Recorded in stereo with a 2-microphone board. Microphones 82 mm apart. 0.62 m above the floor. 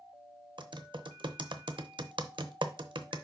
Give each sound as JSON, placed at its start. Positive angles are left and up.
{"t": 0.6, "sound": "typing on a keyboard", "side_deg": -75, "distance_m": 0.7}